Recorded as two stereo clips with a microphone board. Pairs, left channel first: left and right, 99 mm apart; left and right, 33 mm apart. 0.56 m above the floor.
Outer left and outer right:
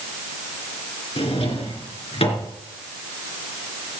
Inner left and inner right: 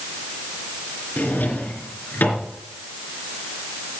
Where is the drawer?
70° left (ahead or behind), 3 m.